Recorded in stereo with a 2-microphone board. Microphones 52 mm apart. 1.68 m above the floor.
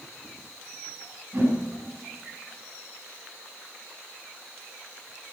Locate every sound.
1.3 s a whoosh: 50° right (ahead or behind), 7 m